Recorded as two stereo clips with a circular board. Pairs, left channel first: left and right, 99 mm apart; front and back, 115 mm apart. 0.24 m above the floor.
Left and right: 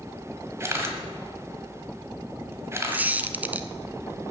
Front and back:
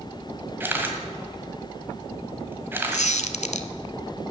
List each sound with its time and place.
0.6 s a camera shutter: 125° right, 1.5 m
2.9 s a squeak: 15° right, 0.6 m